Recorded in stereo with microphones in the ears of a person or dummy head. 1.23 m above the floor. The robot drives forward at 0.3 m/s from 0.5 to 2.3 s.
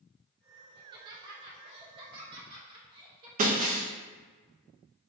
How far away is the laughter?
About 0.7 m.